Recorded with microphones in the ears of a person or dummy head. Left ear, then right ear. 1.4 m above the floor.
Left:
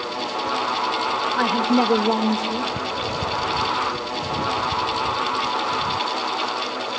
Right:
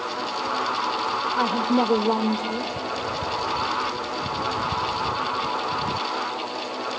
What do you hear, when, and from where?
1.4 s a woman speaking: 10° left (ahead or behind), 2.5 m